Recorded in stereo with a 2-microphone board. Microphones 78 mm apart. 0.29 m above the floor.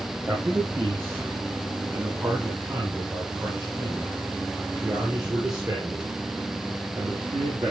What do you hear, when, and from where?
0.3 s a man speaking: 30° right (ahead or behind), 8 m; by 7.7 s 60° right (ahead or behind), 4 m